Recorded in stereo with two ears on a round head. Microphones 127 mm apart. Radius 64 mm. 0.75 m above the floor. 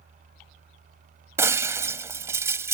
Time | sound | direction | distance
1.4 | breaking glass | 20° right (ahead or behind) | ?